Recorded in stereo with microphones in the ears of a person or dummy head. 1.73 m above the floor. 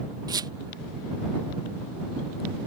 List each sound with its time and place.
0.3 s a squeak: 20° right (ahead or behind)